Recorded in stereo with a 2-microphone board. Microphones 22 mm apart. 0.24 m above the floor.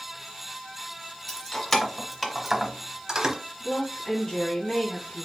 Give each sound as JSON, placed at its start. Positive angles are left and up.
{"t": 1.3, "sound": "keys jangling", "side_deg": 30, "distance_m": 1.3}
{"t": 3.6, "sound": "a woman speaking", "side_deg": 45, "distance_m": 2.5}